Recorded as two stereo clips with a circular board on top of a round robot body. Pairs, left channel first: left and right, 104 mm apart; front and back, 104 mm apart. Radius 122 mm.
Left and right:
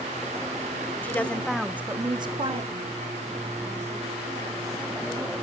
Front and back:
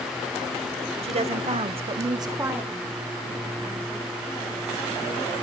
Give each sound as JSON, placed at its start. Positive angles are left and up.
{"t": 1.0, "sound": "a woman speaking", "azimuth_deg": 160, "distance_m": 2.0}